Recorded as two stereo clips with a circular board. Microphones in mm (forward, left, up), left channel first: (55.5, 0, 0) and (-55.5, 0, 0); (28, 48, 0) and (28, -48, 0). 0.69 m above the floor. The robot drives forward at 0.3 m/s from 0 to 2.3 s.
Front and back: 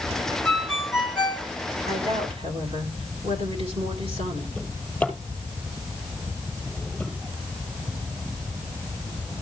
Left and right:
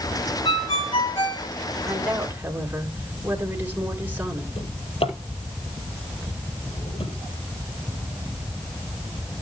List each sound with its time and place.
0.5 s a ringtone: 85° left, 3 m; by 1.5 s 95° left, 3 m
1.9 s a woman speaking: 160° right, 3 m
4.6 s a drawer: 80° left, 4 m